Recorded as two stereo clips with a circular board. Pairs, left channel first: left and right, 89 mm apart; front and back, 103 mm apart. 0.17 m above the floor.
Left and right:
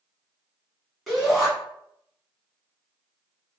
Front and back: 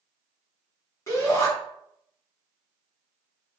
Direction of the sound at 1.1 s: 5° left.